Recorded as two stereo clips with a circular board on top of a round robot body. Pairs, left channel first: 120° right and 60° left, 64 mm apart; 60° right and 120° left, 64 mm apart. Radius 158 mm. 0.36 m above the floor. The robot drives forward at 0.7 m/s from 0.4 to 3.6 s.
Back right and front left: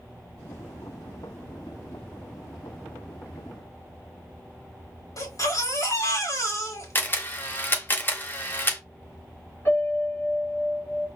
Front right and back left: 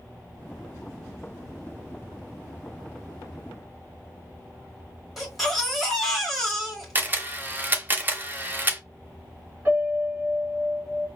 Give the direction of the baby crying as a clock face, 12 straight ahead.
5 o'clock.